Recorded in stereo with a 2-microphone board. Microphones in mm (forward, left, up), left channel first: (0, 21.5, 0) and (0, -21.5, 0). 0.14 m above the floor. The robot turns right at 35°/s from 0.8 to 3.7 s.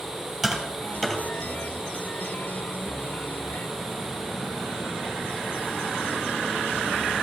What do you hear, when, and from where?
0.4 s tapping: centre (ahead or behind), 2 m; by 1.2 s 15° left (ahead or behind), 2 m